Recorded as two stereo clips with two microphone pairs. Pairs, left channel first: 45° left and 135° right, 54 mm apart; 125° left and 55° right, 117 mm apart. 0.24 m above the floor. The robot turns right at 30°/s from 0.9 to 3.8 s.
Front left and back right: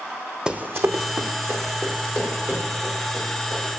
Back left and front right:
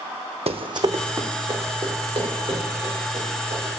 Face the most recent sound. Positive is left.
turn(degrees=-55)